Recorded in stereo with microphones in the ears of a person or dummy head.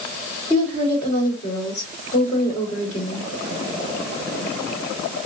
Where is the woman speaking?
25° left (ahead or behind), 2 m.